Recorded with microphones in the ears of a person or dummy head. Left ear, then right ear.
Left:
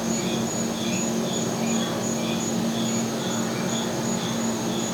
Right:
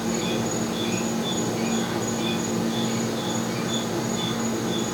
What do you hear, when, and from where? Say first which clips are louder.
0.0 s an insect: right 1 dB; 10° right (ahead or behind), 1.0 m